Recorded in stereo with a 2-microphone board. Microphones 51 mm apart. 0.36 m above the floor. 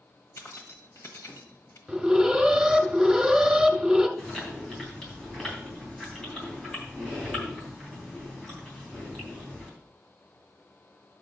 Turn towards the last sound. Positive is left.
turn(degrees=10)  # may be behind; listen again after turning